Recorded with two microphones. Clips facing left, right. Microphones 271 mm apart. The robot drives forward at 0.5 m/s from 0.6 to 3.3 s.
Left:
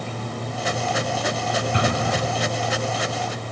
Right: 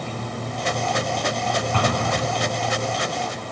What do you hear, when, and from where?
1.7 s an explosion: 20° left (ahead or behind), 1.4 m; by 2.6 s 15° left (ahead or behind), 1.7 m